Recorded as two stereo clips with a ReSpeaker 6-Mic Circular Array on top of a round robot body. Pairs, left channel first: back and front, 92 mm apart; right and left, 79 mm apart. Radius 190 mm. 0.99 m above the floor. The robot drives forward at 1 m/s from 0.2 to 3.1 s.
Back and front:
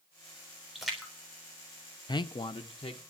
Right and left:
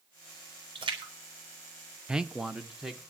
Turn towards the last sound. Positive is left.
turn(degrees=175)